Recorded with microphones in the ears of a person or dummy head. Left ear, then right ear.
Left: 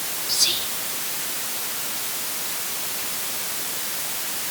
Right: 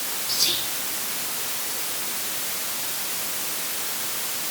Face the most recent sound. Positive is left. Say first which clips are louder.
# left 2 dB
turn(degrees=5)  # may be behind; listen again after turning